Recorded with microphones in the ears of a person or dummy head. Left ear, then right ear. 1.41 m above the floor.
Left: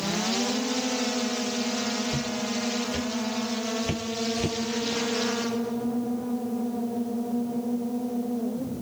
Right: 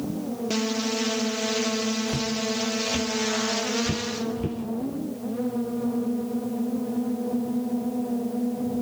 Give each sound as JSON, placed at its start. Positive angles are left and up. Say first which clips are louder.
{"t": 2.1, "sound": "footsteps", "louder": "right 2 dB", "side_deg": -20, "distance_m": 2.5}